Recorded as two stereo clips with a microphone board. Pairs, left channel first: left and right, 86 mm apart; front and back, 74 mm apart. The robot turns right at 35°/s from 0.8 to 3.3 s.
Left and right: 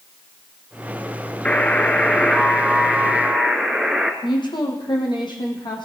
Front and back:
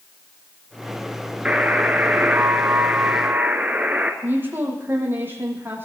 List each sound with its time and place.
1.4 s a buzzer: 130° left, 1.3 m; by 4.1 s 165° right, 1.3 m
4.2 s a woman speaking: 120° left, 4.5 m